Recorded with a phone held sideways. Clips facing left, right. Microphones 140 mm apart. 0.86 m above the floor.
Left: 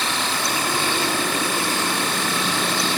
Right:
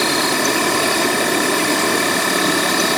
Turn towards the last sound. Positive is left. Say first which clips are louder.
# right 8 dB
turn(degrees=-70)  # may be behind; listen again after turning